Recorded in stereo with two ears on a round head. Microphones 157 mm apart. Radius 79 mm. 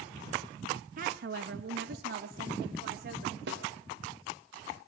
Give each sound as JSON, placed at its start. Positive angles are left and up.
{"t": 1.0, "sound": "a woman speaking", "side_deg": -50, "distance_m": 1.0}
{"t": 3.5, "sound": "a snare drum", "side_deg": -70, "distance_m": 2.5}